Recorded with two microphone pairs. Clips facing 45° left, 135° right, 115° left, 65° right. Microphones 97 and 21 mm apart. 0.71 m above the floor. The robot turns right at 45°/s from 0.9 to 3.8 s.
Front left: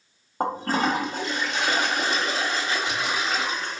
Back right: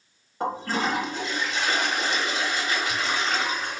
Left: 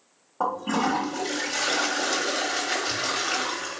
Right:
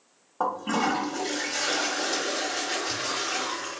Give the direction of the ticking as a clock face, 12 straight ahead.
No ticking in this recording.